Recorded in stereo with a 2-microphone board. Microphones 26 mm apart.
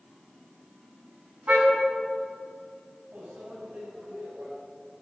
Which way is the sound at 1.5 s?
75° right (ahead or behind).